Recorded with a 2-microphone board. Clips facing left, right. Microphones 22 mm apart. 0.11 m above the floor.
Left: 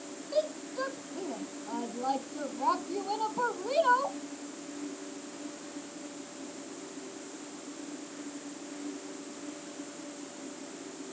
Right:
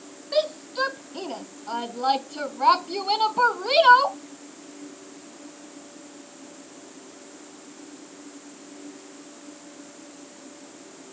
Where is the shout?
55° right (ahead or behind); by 4.2 s 65° right (ahead or behind).